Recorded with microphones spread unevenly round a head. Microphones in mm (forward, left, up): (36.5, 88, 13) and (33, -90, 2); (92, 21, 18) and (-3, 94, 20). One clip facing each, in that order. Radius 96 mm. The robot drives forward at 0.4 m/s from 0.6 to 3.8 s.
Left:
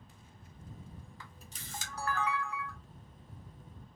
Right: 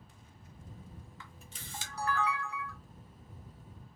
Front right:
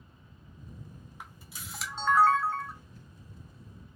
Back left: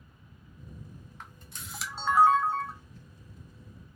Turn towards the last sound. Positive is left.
turn(degrees=125)